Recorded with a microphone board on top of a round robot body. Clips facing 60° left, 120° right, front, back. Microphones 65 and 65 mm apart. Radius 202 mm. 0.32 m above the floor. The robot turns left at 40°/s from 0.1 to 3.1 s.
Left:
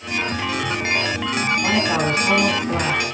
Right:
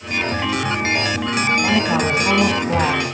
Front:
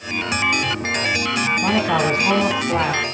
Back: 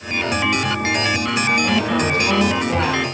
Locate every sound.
1.6 s a man speaking: 30° right, 5 m; by 3.0 s 85° right, 5 m